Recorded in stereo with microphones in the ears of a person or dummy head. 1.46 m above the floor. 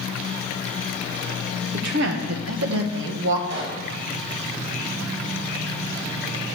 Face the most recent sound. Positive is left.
turn(degrees=-65)  # may be behind; listen again after turning